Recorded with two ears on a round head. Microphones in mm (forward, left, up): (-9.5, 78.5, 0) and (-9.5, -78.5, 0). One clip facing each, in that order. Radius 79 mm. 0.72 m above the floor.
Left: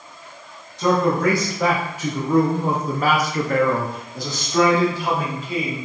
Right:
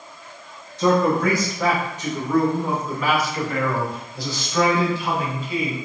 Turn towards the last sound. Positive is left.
turn(degrees=35)  # may be behind; listen again after turning